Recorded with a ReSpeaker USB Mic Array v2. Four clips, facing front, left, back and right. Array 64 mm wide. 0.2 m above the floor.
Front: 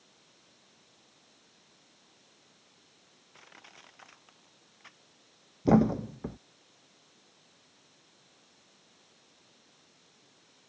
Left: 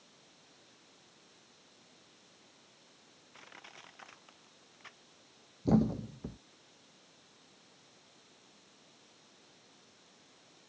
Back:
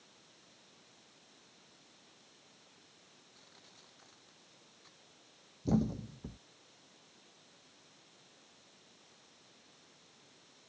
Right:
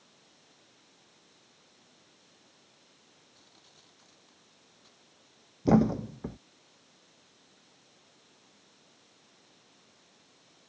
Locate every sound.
3.3 s crushing: 50° left
5.7 s a thud: 30° right